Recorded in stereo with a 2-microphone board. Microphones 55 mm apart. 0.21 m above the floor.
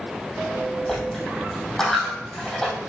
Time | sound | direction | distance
0.9 | a dropped coin | 10° left (ahead or behind) | 3.5 m